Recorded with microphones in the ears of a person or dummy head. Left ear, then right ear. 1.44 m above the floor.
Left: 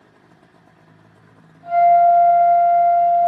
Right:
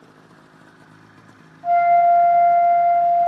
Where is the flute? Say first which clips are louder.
Left 2 dB; 5° right (ahead or behind), 0.9 m.